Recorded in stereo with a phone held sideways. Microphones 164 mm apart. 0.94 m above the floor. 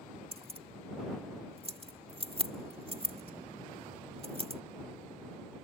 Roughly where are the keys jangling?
Right.